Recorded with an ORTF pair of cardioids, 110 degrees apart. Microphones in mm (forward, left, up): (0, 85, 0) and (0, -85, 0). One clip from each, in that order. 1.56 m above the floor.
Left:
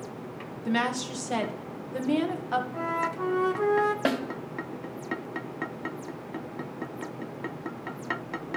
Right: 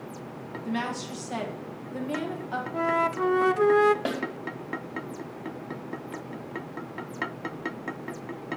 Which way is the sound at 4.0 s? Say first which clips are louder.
Left 3 dB; 30° left.